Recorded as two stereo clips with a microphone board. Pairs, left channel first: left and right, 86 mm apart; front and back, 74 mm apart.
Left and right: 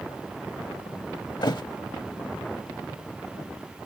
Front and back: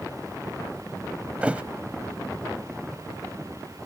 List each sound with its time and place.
1.4 s a thud: 110° left